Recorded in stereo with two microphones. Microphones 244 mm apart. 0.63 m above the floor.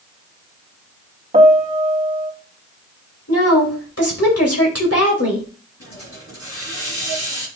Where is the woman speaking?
70° left (ahead or behind), 2.5 m.